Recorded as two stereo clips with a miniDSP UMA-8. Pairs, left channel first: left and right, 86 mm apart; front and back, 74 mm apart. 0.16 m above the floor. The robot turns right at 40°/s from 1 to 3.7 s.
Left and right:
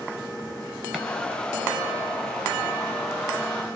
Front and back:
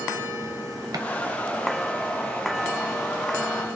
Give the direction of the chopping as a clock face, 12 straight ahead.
6 o'clock.